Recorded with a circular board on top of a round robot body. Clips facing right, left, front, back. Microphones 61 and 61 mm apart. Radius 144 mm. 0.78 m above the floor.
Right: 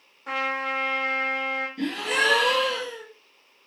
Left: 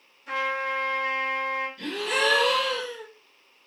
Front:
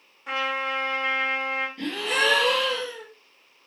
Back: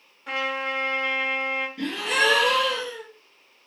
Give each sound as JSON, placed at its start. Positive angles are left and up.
{"t": 0.3, "sound": "a trumpet", "azimuth_deg": -85, "distance_m": 2.0}
{"t": 1.8, "sound": "a gasp", "azimuth_deg": -110, "distance_m": 2.5}